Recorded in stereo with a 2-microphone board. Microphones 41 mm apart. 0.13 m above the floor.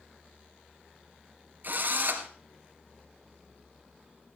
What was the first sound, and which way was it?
A drill, 50° right (ahead or behind).